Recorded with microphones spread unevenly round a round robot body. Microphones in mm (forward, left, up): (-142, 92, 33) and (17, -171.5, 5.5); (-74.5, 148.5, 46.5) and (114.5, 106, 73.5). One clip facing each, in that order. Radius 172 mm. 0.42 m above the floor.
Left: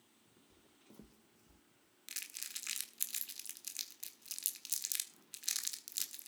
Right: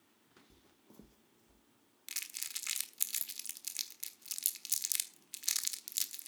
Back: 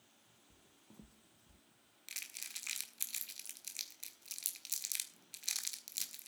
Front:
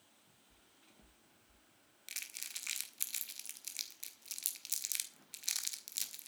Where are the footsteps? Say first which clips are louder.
Left 1 dB, back 7 dB; 125° right, 1.5 m; by 1.6 s 175° right, 2.0 m.